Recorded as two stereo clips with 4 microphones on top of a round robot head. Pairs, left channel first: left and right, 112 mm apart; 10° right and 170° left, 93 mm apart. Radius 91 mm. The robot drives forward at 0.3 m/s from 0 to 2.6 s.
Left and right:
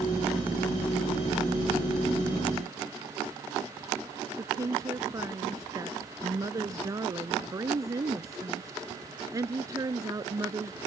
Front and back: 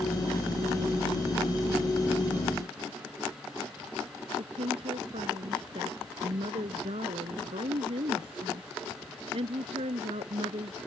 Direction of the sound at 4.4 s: 150° right.